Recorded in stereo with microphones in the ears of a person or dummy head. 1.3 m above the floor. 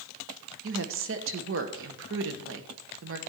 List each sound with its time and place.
0.6 s a woman speaking: 60° right (ahead or behind), 1.0 m